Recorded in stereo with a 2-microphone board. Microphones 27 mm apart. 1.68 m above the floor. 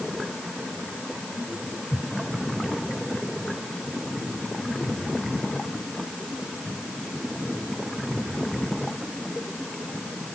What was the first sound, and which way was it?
Only background noise.